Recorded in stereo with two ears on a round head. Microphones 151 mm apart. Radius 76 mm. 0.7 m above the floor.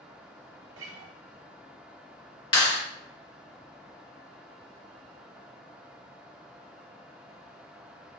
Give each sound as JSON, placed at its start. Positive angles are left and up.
{"t": 0.8, "sound": "a guitar", "side_deg": -85, "distance_m": 0.6}
{"t": 2.5, "sound": "a clap", "side_deg": 30, "distance_m": 1.3}